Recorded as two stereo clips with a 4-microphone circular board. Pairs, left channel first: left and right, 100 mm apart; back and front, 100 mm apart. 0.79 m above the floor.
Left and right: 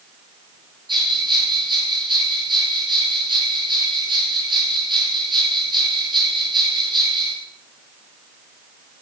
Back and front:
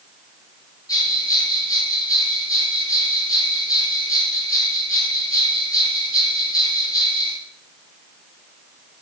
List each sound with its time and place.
0.9 s a bell: 130° right, 8 m